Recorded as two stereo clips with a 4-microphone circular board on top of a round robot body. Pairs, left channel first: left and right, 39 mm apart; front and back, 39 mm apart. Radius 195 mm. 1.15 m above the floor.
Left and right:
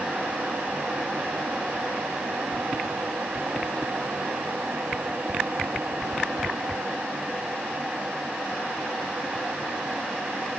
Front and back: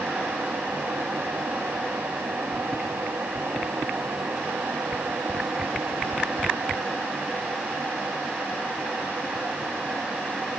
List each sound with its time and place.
Only background noise.